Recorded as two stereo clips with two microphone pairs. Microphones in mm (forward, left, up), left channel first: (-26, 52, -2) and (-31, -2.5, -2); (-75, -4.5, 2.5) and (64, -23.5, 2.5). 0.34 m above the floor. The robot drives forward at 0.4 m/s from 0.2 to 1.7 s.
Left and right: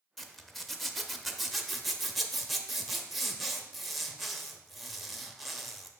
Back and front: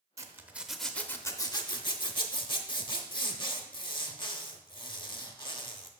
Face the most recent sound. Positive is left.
turn(degrees=175)